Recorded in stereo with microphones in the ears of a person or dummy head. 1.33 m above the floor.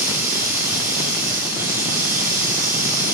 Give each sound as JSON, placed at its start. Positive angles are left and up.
{"t": 0.0, "sound": "running water", "side_deg": -10, "distance_m": 3.0}